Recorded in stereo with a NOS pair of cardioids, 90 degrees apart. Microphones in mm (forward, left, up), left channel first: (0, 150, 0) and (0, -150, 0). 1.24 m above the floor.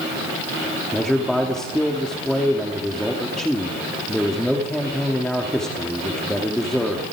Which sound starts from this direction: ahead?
A man speaking, at 0.9 s.